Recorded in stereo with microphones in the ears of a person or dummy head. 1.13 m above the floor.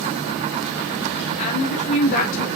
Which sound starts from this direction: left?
A woman speaking, at 1.4 s.